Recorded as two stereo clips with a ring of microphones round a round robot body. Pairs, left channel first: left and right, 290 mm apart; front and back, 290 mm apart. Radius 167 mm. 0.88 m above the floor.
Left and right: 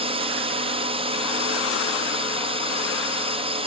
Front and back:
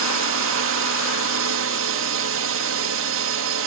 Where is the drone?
155° right.